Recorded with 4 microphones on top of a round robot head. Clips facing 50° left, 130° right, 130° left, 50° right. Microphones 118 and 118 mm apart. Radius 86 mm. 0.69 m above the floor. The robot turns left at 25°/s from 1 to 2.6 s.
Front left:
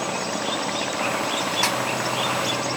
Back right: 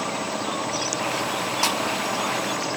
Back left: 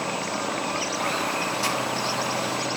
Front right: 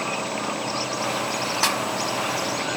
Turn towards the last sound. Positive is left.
turn(degrees=-85)